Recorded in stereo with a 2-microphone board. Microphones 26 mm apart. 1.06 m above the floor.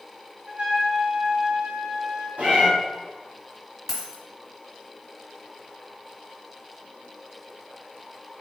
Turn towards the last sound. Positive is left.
turn(degrees=-15)  # may be behind; listen again after turning